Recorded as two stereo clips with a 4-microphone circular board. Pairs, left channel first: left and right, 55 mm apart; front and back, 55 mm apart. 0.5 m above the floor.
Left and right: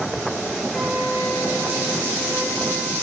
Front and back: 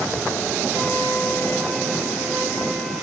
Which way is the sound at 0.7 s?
150° left.